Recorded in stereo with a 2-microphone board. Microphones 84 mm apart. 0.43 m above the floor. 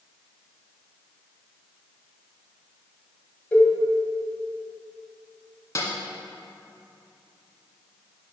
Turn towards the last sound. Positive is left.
turn(degrees=35)  # may be behind; listen again after turning